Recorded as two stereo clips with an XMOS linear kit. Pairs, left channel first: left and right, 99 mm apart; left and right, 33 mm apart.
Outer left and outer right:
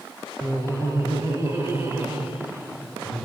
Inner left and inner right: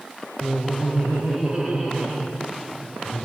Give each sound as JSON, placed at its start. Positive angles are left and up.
{"t": 0.4, "sound": "laughter", "side_deg": -35, "distance_m": 1.8}